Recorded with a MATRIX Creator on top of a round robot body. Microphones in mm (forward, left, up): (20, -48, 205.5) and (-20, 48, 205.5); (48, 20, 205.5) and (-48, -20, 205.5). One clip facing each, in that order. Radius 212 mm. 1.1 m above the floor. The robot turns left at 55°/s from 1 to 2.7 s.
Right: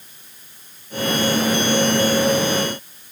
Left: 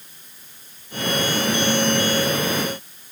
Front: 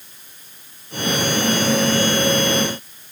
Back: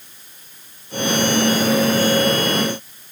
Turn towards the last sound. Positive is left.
No sound to turn to.